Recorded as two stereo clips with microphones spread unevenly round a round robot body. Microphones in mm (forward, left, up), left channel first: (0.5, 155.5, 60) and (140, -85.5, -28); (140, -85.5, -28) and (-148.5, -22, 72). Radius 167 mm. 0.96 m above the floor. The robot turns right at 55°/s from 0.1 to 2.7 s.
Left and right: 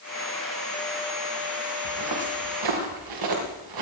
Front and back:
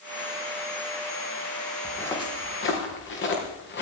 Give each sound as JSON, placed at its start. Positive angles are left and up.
{"t": 1.9, "sound": "footsteps", "azimuth_deg": -105, "distance_m": 5.0}